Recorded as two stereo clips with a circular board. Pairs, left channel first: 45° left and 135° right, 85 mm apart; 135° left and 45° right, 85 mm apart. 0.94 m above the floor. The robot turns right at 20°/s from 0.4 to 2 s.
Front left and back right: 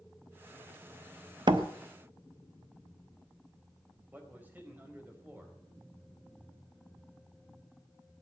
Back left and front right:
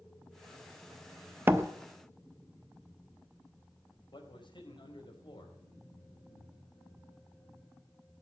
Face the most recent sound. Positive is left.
turn(degrees=155)